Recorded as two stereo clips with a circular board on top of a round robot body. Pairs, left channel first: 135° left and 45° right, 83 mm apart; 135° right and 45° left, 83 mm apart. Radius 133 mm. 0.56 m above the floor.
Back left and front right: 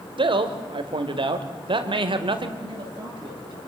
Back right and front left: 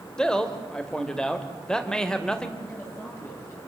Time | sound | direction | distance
0.2 | a man speaking | 55° right | 2.5 m
2.6 | a man speaking | 75° right | 10 m